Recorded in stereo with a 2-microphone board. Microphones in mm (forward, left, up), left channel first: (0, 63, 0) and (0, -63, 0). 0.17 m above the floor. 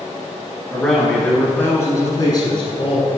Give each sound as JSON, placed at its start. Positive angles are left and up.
{"t": 0.7, "sound": "a man speaking", "side_deg": 0, "distance_m": 2.0}